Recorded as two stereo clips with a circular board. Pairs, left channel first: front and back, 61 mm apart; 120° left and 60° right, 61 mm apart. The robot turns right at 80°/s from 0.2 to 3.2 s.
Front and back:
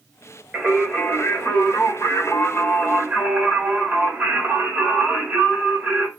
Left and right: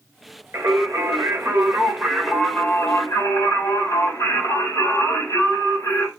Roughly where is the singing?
Right.